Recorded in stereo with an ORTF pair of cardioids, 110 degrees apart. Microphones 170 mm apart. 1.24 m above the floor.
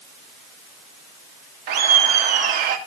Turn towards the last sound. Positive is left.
turn(degrees=-70)